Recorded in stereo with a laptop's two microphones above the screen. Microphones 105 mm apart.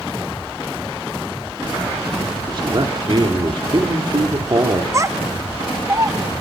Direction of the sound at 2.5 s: 50° right (ahead or behind).